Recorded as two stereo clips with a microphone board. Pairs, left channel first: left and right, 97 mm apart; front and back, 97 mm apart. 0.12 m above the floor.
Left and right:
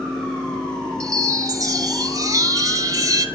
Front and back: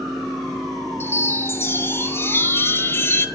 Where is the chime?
55° right, 1.0 m.